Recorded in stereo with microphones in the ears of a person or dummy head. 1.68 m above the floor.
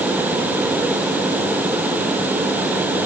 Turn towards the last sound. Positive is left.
No sound to turn to.